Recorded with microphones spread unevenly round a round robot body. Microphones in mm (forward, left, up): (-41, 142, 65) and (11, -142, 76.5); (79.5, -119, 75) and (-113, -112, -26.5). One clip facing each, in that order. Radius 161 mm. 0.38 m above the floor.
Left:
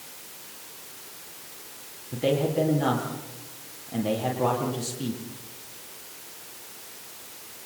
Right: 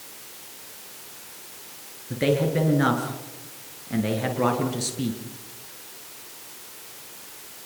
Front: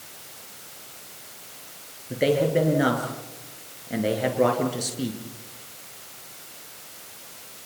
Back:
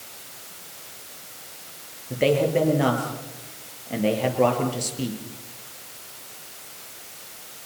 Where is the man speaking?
85° right, 7 m.